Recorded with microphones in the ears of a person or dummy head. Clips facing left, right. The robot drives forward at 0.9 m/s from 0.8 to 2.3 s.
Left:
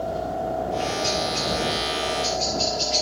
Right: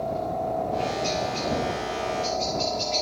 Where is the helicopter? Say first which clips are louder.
Left 1 dB; 15° left (ahead or behind).